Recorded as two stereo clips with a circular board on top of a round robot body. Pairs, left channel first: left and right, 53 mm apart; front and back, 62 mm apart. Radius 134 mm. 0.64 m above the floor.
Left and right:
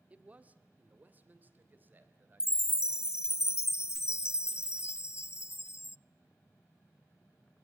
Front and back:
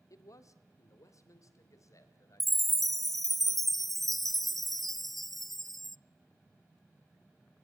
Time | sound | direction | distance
0.1 | a man speaking | 25° right | 1.7 m
2.4 | a chime | 85° left | 0.6 m